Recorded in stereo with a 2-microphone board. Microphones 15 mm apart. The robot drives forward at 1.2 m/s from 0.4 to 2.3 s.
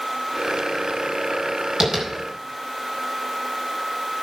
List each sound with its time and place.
1.8 s tapping: 35° right (ahead or behind), 4.5 m